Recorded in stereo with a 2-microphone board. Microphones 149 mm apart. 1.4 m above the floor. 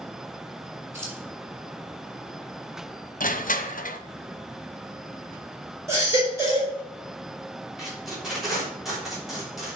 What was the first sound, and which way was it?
Keys jangling, 20° right (ahead or behind).